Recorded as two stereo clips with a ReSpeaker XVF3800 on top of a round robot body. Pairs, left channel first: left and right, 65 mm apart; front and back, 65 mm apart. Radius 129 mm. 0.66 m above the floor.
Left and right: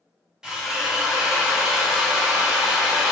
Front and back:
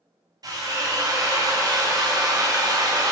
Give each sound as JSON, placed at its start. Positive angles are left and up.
{"t": 0.4, "sound": "a drill", "azimuth_deg": -170, "distance_m": 0.8}